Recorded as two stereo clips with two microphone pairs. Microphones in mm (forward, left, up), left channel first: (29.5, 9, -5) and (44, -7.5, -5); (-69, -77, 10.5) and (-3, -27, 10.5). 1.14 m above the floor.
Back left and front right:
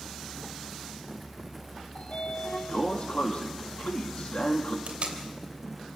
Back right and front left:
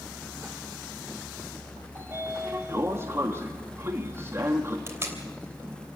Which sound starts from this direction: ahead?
Tape being pulled, at 4.9 s.